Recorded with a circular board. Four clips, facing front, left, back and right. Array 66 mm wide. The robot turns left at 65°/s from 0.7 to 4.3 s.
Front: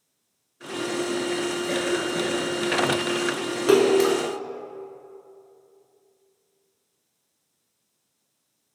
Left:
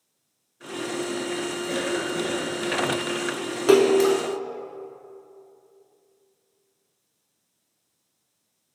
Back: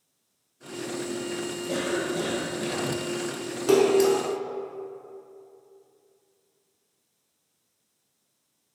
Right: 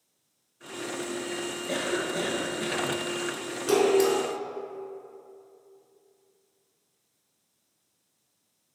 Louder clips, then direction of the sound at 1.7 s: Left 1 dB, even; 10° left.